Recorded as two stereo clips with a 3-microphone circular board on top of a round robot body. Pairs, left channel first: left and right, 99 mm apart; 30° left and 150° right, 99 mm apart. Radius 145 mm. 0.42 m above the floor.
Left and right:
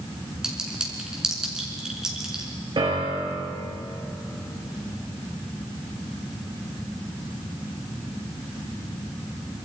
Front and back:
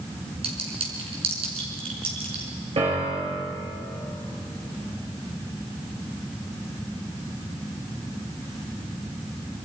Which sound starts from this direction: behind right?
A piano, at 2.8 s.